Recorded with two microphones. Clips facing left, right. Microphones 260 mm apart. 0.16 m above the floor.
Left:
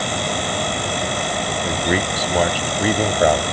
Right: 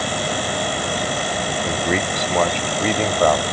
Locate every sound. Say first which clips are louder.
1.6 s a man speaking: left 1 dB; centre (ahead or behind); by 3.4 s 10° left (ahead or behind)